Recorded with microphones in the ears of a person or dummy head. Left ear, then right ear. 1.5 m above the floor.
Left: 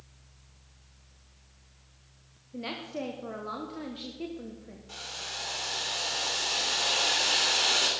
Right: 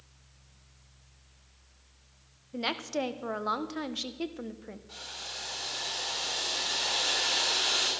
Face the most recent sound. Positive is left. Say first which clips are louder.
# left 3 dB
turn(degrees=20)  # may be behind; listen again after turning